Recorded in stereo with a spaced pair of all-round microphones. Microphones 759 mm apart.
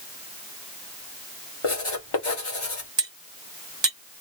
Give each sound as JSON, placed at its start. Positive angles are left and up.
{"t": 1.6, "sound": "writing", "side_deg": 40, "distance_m": 1.7}
{"t": 3.0, "sound": "cutlery clinking", "side_deg": -35, "distance_m": 1.1}